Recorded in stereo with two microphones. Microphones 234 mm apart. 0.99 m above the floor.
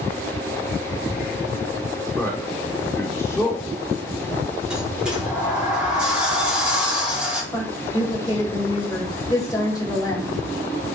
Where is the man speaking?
10° left (ahead or behind), 2.5 m.